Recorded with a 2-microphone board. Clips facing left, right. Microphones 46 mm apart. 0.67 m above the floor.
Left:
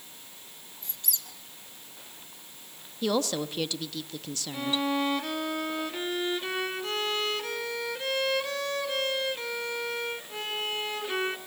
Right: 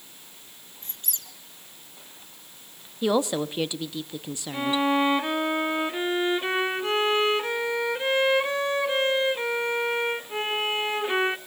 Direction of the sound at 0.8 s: 45° right (ahead or behind).